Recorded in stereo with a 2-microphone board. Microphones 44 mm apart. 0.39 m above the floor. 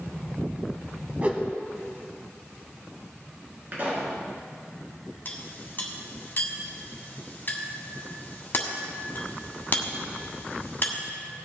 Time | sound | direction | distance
1.2 | a whoosh | 35° right (ahead or behind) | 1.5 m
3.7 | a pop | 45° right (ahead or behind) | 4.5 m
5.2 | a clink | 45° left (ahead or behind) | 1.6 m